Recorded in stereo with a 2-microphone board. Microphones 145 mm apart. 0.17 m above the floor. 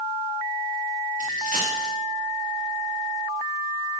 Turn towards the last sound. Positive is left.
turn(degrees=-75)  # may be behind; listen again after turning